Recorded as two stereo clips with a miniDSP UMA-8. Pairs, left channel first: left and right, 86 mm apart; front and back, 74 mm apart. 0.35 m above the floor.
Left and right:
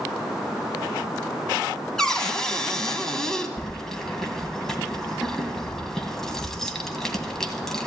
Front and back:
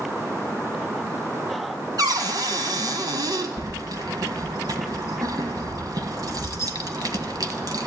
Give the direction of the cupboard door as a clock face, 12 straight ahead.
6 o'clock.